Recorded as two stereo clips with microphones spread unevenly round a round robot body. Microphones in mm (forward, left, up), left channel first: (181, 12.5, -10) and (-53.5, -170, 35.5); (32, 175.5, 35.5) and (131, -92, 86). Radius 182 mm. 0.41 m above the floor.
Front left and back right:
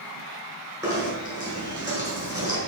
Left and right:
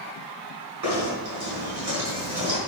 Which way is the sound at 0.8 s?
65° right.